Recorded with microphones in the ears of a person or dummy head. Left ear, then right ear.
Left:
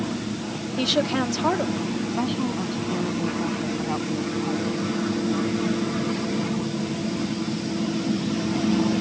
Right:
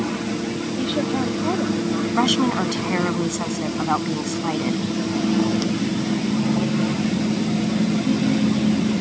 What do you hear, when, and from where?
0.8 s a woman speaking: 55° left (ahead or behind)
2.2 s a woman speaking: 70° right (ahead or behind)